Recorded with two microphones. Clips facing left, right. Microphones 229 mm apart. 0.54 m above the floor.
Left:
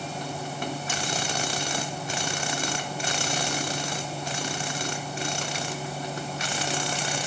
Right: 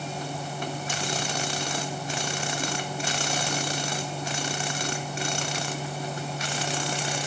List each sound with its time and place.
Only background noise.